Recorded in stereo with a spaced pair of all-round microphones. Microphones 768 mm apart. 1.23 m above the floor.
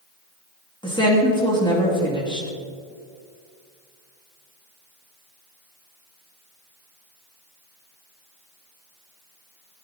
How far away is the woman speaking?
About 2.5 m.